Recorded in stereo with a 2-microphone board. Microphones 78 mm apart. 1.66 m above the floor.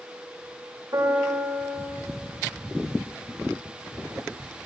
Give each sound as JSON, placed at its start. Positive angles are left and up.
{"t": 0.9, "sound": "a piano", "side_deg": -55, "distance_m": 2.0}